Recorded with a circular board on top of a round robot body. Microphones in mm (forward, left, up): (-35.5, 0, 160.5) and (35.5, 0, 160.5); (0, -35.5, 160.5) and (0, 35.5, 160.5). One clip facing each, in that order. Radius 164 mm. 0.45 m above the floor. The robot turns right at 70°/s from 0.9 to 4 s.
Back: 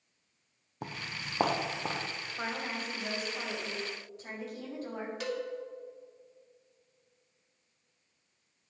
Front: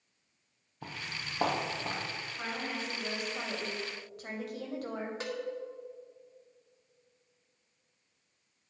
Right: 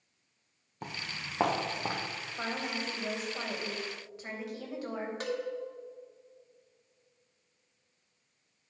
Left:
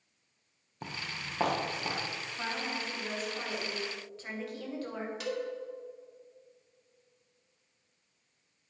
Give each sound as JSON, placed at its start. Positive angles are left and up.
{"t": 0.8, "sound": "footsteps", "azimuth_deg": 180, "distance_m": 1.4}
{"t": 2.4, "sound": "a woman speaking", "azimuth_deg": -130, "distance_m": 3.0}
{"t": 5.2, "sound": "a cowbell", "azimuth_deg": -50, "distance_m": 2.5}